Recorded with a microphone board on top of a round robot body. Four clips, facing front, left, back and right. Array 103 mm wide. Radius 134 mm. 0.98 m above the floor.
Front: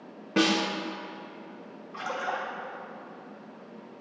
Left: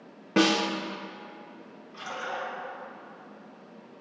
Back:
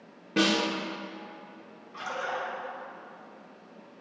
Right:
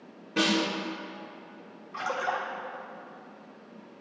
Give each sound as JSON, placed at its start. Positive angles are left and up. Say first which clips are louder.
{"t": 0.4, "sound": "a snare drum", "louder": "left 3 dB, front 1 dB", "azimuth_deg": 70, "distance_m": 0.7}
{"t": 1.9, "sound": "a splash", "louder": "right 5 dB, front 1 dB", "azimuth_deg": -70, "distance_m": 2.0}